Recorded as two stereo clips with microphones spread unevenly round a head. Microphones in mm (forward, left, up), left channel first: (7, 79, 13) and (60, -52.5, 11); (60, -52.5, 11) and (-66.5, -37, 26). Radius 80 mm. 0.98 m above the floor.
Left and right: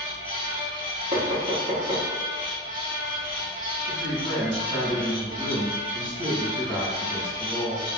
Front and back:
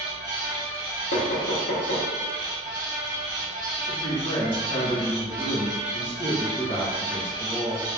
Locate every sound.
0.0 s a fan: 160° left, 1.4 m
1.1 s knocking: 15° right, 0.7 m
3.9 s a woman speaking: 30° left, 1.2 m